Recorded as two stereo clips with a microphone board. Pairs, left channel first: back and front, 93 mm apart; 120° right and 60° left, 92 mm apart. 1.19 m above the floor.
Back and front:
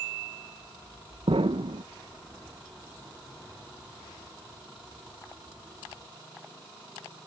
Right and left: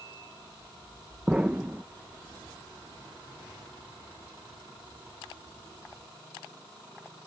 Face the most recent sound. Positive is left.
turn(degrees=-15)